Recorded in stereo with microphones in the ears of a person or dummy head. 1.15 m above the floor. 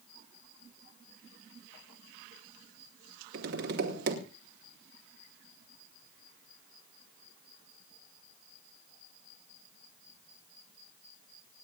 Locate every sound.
3.3 s tapping: 60° right (ahead or behind), 2 m